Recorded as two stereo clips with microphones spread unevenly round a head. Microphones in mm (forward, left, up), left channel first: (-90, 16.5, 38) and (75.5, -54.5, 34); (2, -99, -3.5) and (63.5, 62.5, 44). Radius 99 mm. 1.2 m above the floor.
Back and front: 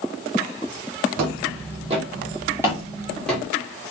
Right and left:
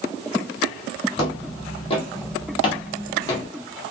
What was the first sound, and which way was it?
Footsteps, 45° right.